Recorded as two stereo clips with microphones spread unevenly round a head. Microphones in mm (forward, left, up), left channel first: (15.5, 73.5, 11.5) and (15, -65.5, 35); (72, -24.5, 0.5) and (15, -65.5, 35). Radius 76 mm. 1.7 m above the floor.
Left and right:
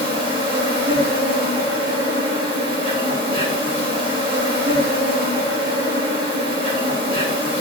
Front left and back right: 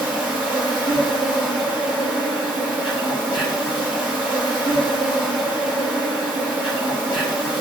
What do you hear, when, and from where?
0.0 s an insect: 70° right, 3.5 m